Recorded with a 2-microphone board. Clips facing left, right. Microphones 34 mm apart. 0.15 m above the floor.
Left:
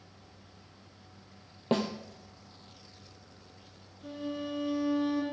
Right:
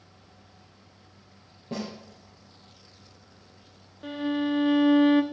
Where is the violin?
55° right (ahead or behind), 0.9 m.